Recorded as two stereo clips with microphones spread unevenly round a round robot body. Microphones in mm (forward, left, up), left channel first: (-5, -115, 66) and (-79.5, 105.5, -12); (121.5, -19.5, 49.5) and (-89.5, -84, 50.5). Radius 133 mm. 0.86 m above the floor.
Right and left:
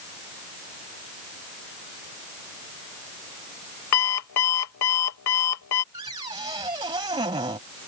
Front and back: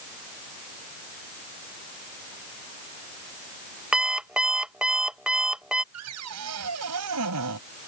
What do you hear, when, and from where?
3.9 s an alarm clock: 75° right
5.9 s a cupboard door: straight behind